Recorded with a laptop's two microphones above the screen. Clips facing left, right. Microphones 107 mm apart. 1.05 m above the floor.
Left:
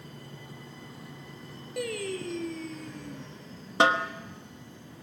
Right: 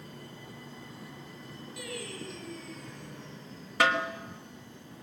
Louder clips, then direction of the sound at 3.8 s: Left 3 dB; 25° left (ahead or behind).